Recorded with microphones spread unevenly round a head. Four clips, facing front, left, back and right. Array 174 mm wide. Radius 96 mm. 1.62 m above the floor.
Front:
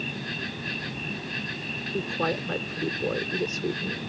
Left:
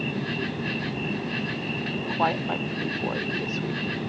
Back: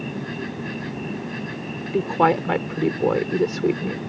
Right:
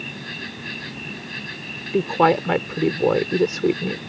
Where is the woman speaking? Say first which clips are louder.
Right 9 dB, back 10 dB; 125° right.